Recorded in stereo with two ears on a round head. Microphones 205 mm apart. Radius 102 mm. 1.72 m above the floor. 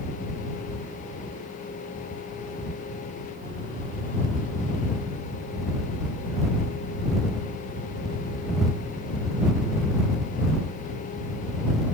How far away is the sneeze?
I don't hear a sneeze.